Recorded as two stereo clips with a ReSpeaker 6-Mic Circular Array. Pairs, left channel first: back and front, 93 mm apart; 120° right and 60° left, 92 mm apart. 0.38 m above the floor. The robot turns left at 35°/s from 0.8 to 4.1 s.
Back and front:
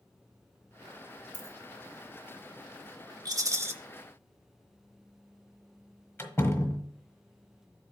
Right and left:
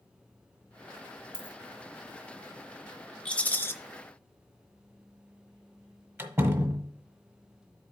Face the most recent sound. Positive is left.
turn(degrees=115)